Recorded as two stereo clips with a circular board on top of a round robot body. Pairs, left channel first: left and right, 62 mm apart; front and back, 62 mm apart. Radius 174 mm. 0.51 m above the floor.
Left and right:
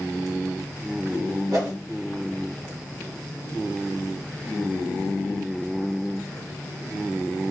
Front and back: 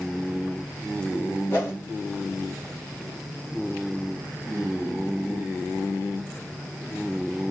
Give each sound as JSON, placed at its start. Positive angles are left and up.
{"t": 1.5, "sound": "a whoosh", "azimuth_deg": -55, "distance_m": 1.7}